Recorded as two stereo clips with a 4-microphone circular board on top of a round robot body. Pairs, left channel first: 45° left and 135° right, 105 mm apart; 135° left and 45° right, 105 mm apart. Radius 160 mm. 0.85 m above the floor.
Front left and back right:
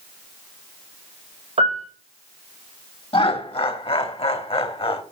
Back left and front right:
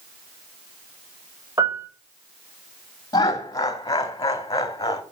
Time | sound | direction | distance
1.6 | a piano | 110° right | 5 m
3.1 | laughter | 80° left | 2.5 m